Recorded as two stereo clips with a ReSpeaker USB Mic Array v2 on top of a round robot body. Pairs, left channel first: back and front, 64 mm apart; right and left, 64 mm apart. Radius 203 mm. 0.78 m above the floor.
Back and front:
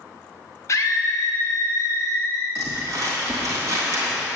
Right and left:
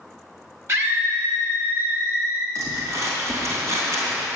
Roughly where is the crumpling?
Ahead left.